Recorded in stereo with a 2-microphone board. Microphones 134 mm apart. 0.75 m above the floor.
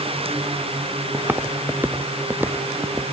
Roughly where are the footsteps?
Centre.